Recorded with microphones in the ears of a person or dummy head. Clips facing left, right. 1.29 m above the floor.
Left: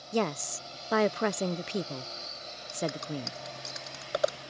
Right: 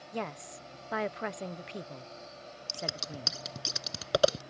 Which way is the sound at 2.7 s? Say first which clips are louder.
Left 7 dB; 45° right (ahead or behind).